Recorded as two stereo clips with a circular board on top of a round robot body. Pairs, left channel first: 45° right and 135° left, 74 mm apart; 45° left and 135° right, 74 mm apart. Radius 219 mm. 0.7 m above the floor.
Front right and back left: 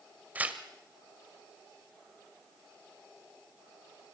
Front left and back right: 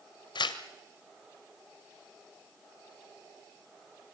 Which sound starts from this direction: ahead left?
Tearing paper, at 0.3 s.